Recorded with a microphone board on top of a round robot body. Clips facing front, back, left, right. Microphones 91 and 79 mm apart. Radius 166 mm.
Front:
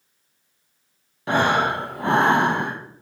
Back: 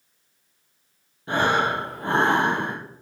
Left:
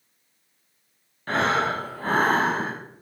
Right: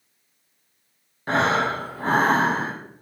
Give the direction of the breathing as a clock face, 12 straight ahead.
1 o'clock.